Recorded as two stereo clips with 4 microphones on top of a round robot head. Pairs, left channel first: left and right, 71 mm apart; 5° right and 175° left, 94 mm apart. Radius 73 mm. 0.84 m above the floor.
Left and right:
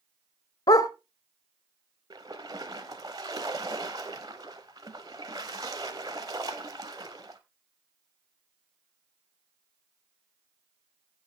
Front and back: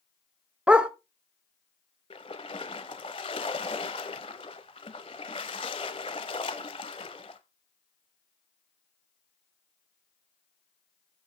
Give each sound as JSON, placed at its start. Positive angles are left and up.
{"t": 0.7, "sound": "a dog barking", "azimuth_deg": 100, "distance_m": 0.7}
{"t": 2.1, "sound": "a splash", "azimuth_deg": -40, "distance_m": 0.8}